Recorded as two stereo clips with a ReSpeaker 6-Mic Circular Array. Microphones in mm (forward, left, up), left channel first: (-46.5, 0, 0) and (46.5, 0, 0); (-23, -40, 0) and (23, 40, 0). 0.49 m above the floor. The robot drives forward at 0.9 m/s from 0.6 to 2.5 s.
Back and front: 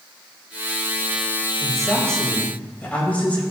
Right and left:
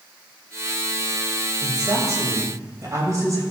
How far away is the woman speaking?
About 3 m.